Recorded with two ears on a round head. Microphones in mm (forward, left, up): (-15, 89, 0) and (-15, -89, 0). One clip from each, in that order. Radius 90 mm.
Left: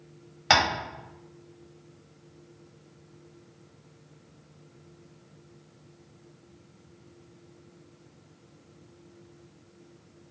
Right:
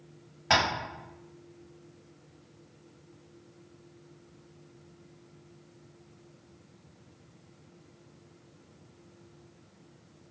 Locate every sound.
0.5 s tapping: 55° left (ahead or behind), 1.2 m